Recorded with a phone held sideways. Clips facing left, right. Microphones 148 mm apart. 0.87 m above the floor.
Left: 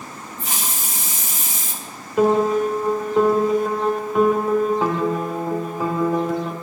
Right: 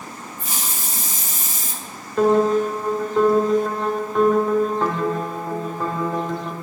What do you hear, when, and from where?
0.4 s a hiss: 85° left, 2.0 m
2.2 s a piano: 10° left (ahead or behind), 1.8 m